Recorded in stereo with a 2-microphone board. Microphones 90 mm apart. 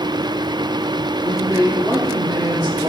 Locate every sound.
1.2 s a man speaking: 35° right (ahead or behind), 5.5 m; by 2.9 s 45° right (ahead or behind), 6 m